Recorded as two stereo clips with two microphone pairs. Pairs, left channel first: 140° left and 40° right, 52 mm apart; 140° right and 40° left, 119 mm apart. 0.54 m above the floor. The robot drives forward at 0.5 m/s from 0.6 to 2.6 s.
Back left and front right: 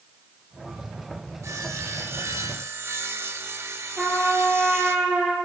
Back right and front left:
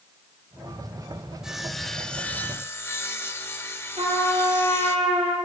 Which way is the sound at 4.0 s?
25° left.